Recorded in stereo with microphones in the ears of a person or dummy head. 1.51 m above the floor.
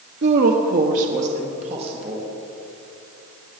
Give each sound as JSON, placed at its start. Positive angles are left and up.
{"t": 0.2, "sound": "a woman speaking", "side_deg": -65, "distance_m": 0.9}